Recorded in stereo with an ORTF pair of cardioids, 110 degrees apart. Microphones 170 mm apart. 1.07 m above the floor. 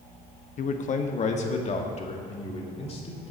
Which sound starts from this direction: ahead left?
A man speaking, at 0.6 s.